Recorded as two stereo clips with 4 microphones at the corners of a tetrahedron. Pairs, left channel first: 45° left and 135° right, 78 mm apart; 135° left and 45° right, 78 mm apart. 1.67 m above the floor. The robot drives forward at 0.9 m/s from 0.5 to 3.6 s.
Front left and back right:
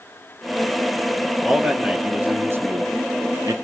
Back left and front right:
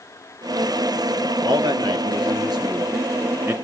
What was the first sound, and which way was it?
A man speaking, 50° right.